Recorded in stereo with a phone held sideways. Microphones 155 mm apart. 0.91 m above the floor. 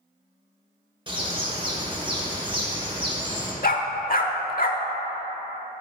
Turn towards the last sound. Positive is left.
turn(degrees=65)  # may be behind; listen again after turning